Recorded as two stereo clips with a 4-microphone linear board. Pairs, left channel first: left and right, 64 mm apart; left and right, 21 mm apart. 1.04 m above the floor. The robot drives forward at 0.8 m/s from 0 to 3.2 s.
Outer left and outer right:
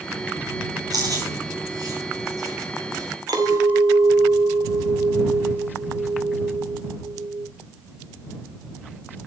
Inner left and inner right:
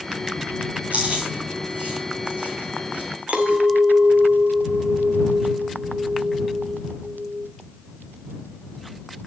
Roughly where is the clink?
Right.